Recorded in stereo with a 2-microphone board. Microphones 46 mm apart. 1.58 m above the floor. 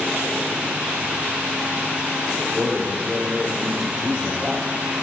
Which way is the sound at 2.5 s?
10° right (ahead or behind).